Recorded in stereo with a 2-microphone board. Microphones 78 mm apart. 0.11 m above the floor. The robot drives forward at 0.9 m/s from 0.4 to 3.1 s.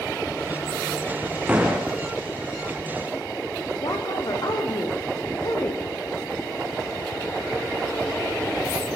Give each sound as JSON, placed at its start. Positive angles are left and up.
{"t": 1.5, "sound": "a door slam", "side_deg": -15, "distance_m": 6.0}
{"t": 3.8, "sound": "a woman speaking", "side_deg": 60, "distance_m": 6.0}